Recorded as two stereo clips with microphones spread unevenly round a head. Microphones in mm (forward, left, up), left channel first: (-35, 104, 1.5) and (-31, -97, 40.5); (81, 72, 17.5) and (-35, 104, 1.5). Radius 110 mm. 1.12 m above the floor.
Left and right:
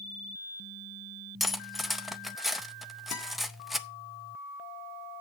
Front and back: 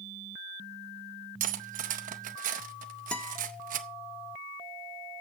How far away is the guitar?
About 1.9 m.